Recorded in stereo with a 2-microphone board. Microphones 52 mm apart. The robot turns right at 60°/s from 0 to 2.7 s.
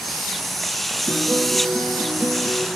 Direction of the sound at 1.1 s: 140° left.